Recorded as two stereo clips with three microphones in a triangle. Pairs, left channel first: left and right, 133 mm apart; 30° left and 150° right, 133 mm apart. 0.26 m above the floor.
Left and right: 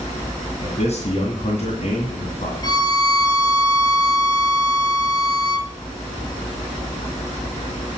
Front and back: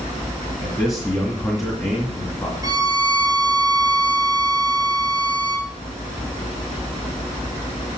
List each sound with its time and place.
0.6 s a man speaking: 95° left, 2.5 m
2.6 s a violin: 150° left, 1.0 m